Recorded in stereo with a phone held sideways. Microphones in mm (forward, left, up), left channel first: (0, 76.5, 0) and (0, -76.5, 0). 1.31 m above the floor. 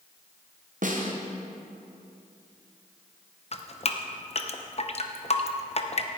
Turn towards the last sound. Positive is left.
turn(degrees=45)  # may be behind; listen again after turning